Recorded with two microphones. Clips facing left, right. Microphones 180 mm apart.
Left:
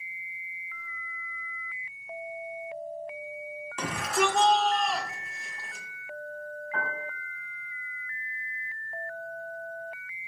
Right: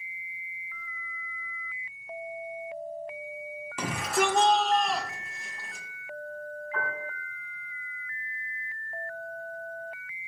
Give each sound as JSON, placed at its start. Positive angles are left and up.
{"t": 3.8, "sound": "a shout", "side_deg": -10, "distance_m": 1.9}
{"t": 6.7, "sound": "a piano", "side_deg": 50, "distance_m": 4.0}